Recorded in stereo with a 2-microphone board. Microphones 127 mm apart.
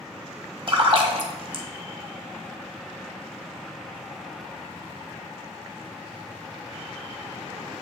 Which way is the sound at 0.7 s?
45° right (ahead or behind).